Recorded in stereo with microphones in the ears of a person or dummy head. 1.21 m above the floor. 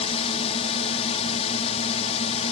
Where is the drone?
35° left (ahead or behind).